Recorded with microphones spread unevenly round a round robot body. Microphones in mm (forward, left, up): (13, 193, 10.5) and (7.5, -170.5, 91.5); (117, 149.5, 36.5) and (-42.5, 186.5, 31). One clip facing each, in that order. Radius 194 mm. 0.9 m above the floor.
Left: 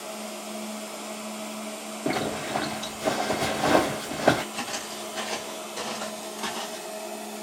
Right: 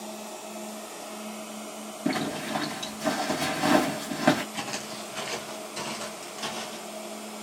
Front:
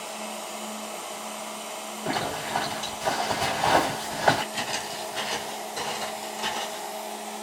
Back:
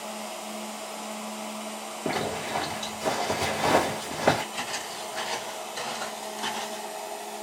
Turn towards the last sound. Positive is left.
turn(degrees=-105)